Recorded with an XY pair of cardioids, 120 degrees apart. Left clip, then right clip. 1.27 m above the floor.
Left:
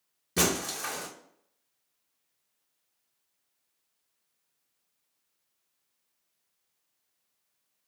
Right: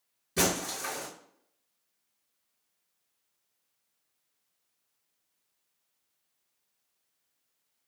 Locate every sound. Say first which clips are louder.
0.4 s breaking glass: left 1 dB; 30° left, 1.0 m